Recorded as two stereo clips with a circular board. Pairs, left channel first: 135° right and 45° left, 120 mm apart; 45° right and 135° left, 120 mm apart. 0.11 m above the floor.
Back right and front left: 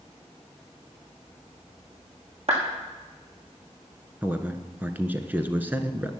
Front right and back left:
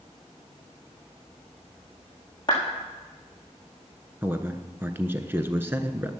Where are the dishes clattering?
No dishes clattering in this recording.